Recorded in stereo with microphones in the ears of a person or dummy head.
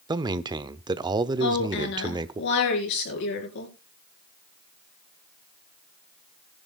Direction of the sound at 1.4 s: 60° left (ahead or behind).